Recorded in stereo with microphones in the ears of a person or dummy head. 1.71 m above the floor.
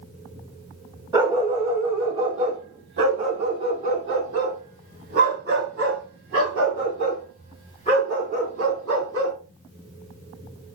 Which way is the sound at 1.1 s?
30° right (ahead or behind).